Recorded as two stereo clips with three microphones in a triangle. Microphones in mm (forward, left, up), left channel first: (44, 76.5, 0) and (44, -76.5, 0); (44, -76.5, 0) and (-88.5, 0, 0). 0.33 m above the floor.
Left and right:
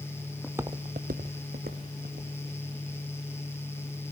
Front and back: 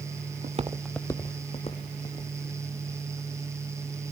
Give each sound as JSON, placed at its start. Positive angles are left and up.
{"t": 0.4, "sound": "footsteps", "azimuth_deg": 180, "distance_m": 0.8}